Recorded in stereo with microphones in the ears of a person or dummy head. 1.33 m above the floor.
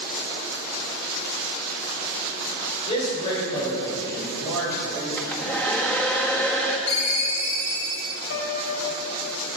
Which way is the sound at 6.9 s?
85° left.